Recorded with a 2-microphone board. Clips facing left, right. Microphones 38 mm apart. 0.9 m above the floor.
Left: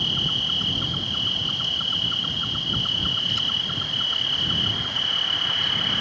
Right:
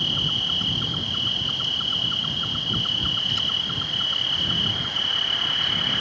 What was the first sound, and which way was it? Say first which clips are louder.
An insect: even; centre (ahead or behind).